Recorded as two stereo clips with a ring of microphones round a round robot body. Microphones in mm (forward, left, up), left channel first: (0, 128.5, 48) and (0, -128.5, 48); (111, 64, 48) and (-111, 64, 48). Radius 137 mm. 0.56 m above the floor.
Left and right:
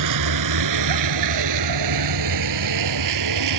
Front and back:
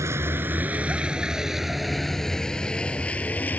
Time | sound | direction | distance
0.0 | a vehicle | 100° right | ?